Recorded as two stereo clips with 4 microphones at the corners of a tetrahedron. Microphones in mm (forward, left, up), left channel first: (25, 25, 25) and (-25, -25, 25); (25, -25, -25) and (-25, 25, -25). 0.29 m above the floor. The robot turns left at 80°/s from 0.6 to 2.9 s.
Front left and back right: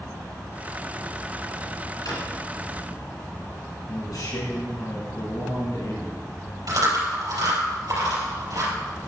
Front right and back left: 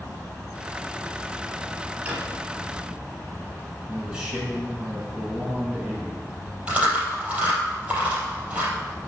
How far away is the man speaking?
About 4 m.